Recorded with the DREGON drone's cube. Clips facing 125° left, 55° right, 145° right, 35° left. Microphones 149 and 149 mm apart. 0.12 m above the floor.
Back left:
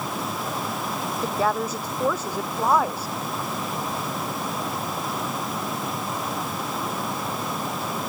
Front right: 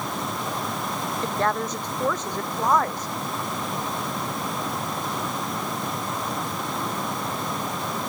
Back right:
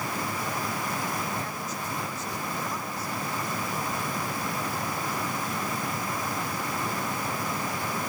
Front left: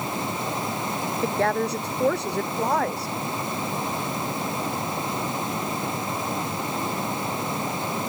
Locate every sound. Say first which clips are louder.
1.2 s a woman speaking: back left 1 dB, front left 11 dB; 40° left; by 3.1 s 45° left